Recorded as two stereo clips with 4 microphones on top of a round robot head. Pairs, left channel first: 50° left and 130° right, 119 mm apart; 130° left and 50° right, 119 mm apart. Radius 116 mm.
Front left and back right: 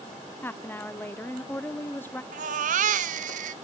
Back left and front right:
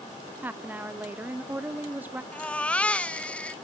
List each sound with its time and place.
0.4 s a woman speaking: 5° left, 0.6 m
2.3 s a baby crying: 150° right, 0.6 m